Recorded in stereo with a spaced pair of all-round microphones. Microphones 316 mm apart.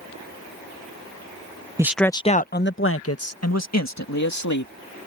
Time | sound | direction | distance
1.8 | a man speaking | 10° right (ahead or behind) | ?